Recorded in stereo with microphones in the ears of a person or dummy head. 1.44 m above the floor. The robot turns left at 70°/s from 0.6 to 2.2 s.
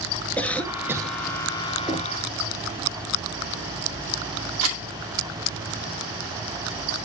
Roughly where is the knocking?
Centre.